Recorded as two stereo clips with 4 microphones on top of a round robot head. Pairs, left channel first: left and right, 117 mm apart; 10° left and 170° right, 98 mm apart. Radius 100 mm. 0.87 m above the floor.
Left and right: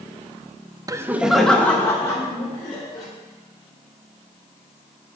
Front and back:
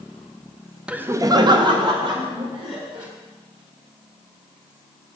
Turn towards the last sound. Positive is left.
turn(degrees=150)